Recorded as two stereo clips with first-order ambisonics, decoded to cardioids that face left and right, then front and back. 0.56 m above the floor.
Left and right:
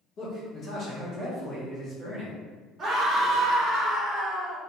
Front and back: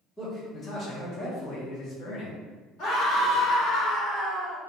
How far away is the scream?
About 1.6 m.